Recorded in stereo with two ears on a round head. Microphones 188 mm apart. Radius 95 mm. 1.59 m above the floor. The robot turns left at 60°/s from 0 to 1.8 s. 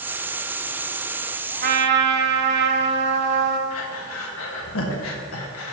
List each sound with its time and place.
1.6 s a trumpet: 40° right (ahead or behind), 1.0 m; by 3.6 s 50° right (ahead or behind), 1.0 m
3.7 s breathing: 70° left (ahead or behind), 1.6 m